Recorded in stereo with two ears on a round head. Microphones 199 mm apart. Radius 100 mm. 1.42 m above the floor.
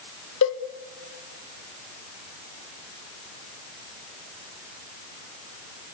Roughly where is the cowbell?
Left.